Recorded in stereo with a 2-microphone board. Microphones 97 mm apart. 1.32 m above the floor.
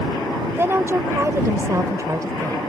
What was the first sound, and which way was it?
A woman speaking, 25° right (ahead or behind).